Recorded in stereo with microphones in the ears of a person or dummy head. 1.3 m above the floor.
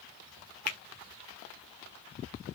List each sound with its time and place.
0.7 s a finger snap: 50° left (ahead or behind), 0.9 m